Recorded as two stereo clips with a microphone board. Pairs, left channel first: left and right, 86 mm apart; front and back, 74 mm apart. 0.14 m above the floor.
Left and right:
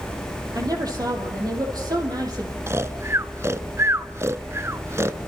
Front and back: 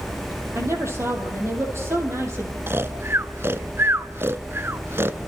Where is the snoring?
135° right, 0.6 m.